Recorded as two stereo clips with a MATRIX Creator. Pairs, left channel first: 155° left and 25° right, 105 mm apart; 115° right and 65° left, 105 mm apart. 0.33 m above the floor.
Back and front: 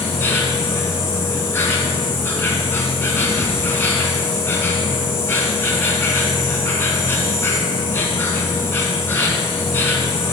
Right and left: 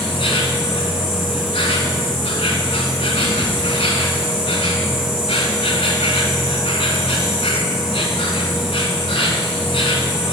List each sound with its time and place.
0.0 s an insect: 135° right, 1.3 m